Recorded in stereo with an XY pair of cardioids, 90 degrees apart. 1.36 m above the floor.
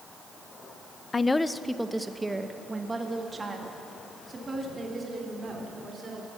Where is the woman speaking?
30° left, 0.6 m; by 6.3 s 40° right, 4.5 m.